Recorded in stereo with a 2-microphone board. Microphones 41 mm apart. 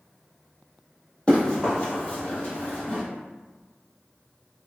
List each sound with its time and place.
1.3 s running footsteps: 30° left (ahead or behind), 1.7 m; by 3.0 s 40° left (ahead or behind), 1.8 m